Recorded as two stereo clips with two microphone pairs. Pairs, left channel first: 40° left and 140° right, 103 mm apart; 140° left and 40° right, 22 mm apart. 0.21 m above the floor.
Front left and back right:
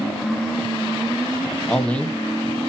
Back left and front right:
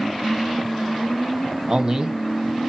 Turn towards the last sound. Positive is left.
turn(degrees=-25)